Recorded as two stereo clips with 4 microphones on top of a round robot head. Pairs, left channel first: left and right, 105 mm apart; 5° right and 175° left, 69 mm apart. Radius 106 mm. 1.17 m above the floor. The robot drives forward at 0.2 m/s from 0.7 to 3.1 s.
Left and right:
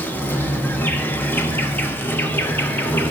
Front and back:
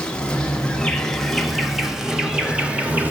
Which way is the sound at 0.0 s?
55° left.